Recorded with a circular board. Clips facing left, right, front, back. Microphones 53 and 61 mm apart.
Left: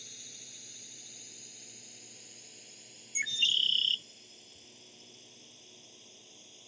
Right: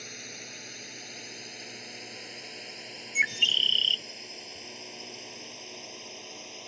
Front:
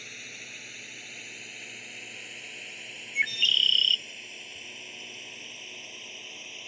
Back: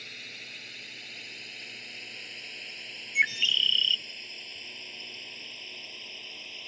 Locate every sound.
0.0 s a drone: 80° right; by 6.7 s 85° right
3.1 s a bird: 115° right